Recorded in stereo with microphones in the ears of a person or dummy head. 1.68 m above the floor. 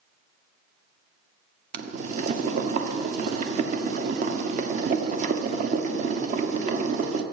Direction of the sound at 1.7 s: 55° right (ahead or behind).